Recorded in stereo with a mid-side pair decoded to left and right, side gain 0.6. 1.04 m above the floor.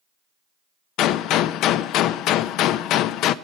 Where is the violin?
I don't hear a violin.